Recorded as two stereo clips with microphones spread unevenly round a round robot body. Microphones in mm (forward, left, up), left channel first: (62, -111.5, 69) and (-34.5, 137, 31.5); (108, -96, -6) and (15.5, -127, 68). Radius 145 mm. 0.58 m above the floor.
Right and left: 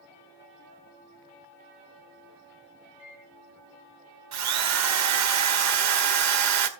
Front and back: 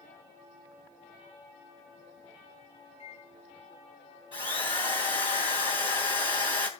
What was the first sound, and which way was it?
A microwave, 65° left.